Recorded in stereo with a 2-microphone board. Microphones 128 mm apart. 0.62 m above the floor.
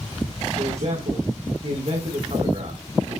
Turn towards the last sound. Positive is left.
turn(degrees=-55)  # may be behind; listen again after turning